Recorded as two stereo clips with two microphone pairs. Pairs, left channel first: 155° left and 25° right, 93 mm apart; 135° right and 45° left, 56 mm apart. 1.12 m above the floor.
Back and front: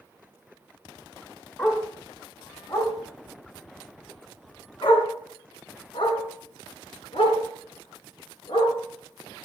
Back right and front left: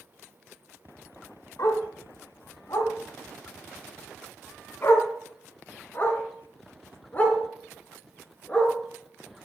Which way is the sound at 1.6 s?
140° right.